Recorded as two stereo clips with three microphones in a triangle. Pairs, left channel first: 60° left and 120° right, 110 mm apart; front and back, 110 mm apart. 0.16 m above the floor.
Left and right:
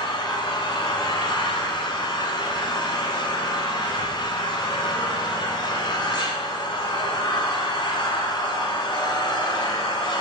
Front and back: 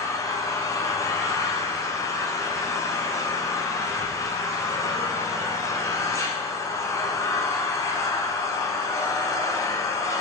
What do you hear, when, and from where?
0.0 s an engine running: 45° left, 1.0 m